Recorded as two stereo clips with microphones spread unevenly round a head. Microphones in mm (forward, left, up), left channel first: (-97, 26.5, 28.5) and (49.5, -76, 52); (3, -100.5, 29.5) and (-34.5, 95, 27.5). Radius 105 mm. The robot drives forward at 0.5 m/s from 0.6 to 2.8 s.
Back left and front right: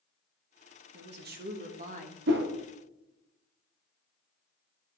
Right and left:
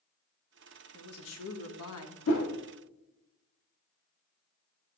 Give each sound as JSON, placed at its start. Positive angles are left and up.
{"t": 0.9, "sound": "a woman speaking", "azimuth_deg": -55, "distance_m": 1.3}
{"t": 2.3, "sound": "a whoosh", "azimuth_deg": -55, "distance_m": 1.3}